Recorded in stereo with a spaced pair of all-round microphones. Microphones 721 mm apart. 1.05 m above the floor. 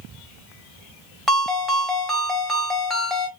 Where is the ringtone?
Centre (ahead or behind), 0.9 m.